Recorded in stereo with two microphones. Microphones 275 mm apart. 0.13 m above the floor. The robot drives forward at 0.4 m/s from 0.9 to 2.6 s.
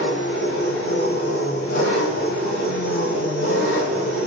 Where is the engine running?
50° left (ahead or behind), 1.9 m; by 4.3 s 65° left (ahead or behind), 1.6 m.